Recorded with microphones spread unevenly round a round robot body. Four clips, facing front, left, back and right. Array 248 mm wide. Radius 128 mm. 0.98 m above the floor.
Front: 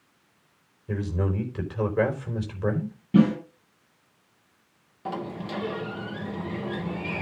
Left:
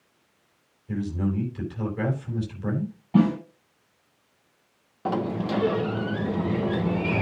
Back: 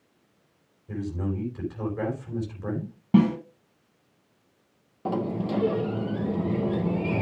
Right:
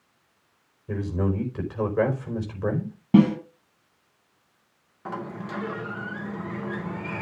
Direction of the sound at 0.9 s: 50° right.